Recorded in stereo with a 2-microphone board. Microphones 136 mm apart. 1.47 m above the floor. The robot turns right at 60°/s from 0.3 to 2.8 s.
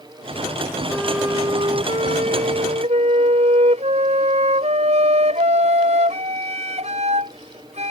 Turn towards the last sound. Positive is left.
turn(degrees=-70)